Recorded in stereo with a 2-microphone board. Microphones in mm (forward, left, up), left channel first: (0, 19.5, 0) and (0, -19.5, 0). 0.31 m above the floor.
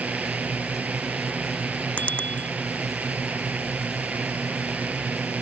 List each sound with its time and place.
0.0 s a drone: 45° right (ahead or behind)
2.0 s a bicycle bell: 35° left (ahead or behind)